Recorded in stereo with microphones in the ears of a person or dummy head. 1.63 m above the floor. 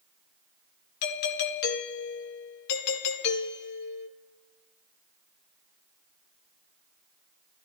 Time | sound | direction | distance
1.0 | a doorbell | 60° left (ahead or behind) | 1.4 m